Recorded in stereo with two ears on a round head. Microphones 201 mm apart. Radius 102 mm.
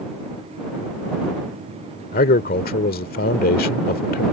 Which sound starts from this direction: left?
A man speaking, at 2.1 s.